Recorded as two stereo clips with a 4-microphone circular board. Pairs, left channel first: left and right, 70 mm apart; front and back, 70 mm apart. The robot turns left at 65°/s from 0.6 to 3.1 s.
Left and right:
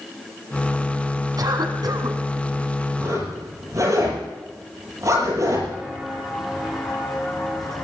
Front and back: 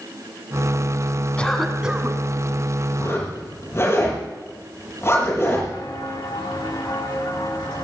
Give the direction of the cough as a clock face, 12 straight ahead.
2 o'clock.